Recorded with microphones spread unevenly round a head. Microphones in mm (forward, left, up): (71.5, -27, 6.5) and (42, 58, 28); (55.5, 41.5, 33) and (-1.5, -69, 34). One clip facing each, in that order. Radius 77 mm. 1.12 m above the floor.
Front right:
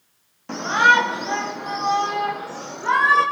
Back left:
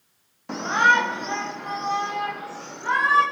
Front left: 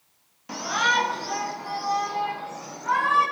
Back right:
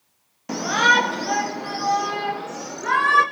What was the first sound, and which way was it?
A shout, 160° right.